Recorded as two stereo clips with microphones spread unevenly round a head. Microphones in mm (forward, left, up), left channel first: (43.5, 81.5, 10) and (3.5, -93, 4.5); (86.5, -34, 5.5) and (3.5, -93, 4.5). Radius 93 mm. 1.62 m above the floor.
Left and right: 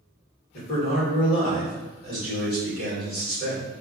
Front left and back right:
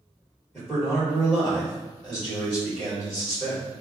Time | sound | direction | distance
0.5 | a man speaking | 120° left | 1.8 m